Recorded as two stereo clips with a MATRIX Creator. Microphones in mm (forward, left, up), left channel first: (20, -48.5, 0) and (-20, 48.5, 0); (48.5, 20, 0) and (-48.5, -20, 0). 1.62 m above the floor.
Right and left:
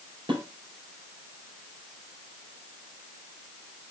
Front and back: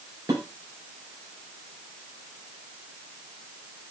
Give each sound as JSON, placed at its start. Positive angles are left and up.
{"t": 0.3, "sound": "dishes clattering", "azimuth_deg": 150, "distance_m": 4.5}